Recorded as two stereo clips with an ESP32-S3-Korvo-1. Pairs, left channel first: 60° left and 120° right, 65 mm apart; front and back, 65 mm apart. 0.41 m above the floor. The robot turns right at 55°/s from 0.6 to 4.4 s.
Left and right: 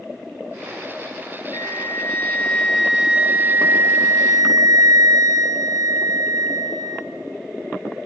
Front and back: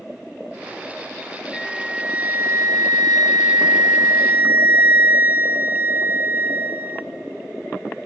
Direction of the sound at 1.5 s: 80° left.